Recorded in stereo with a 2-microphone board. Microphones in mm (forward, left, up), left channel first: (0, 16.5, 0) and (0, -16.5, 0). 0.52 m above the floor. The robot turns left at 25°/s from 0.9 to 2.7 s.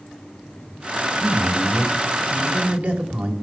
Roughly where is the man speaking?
Ahead right.